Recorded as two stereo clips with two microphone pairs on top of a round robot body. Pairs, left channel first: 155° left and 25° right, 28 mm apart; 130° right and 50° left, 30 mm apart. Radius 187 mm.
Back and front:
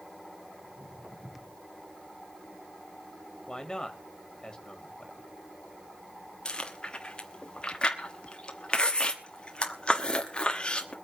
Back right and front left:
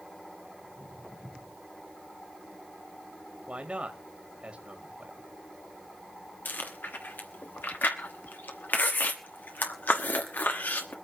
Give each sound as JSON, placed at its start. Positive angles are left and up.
{"t": 0.6, "sound": "footsteps", "azimuth_deg": -60, "distance_m": 8.5}
{"t": 3.5, "sound": "a man speaking", "azimuth_deg": 85, "distance_m": 2.0}
{"t": 6.5, "sound": "chewing", "azimuth_deg": -145, "distance_m": 1.1}